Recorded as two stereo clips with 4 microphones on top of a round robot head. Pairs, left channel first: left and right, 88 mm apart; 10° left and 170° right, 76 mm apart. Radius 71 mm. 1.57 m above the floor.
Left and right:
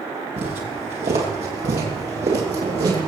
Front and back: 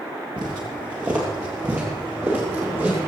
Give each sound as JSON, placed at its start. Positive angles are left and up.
{"t": 0.4, "sound": "footsteps", "azimuth_deg": -110, "distance_m": 2.5}